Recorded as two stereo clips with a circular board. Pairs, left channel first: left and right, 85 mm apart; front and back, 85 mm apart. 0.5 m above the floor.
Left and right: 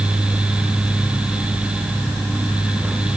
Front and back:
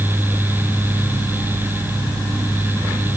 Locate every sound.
Only background noise.